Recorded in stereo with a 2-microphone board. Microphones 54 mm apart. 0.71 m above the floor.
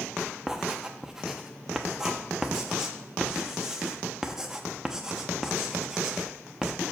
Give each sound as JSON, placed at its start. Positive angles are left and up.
{"t": 0.5, "sound": "writing", "side_deg": -10, "distance_m": 0.8}